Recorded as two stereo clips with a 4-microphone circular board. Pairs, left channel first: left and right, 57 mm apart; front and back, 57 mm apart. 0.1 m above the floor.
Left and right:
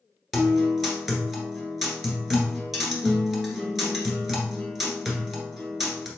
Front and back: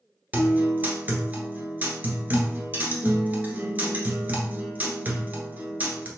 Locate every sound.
0.3 s a guitar: 175° right, 1.2 m